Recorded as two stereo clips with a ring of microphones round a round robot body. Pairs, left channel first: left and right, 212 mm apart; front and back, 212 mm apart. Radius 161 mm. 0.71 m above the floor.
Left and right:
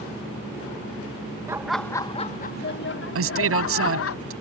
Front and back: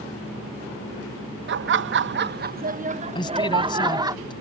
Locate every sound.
1.5 s laughter: 165° right; by 4.2 s 105° left
3.1 s a man speaking: 75° right